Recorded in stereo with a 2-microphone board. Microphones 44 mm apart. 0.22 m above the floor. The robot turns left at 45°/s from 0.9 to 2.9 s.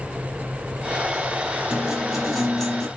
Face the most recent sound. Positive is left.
turn(degrees=160)